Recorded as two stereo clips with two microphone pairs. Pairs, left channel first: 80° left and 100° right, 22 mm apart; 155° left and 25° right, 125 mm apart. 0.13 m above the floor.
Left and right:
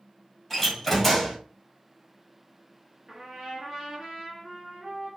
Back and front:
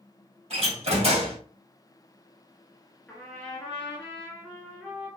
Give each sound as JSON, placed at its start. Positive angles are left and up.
{"t": 0.5, "sound": "a door slam", "azimuth_deg": 10, "distance_m": 2.0}
{"t": 3.1, "sound": "a trumpet", "azimuth_deg": -140, "distance_m": 1.9}